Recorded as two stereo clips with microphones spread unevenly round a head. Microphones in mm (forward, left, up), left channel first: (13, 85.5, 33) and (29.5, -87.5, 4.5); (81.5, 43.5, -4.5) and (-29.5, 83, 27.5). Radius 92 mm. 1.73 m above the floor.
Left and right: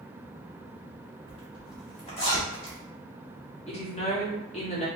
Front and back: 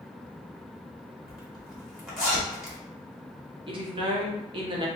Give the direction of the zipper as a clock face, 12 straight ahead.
9 o'clock.